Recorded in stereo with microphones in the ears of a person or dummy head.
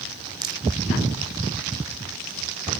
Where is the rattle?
25° right (ahead or behind).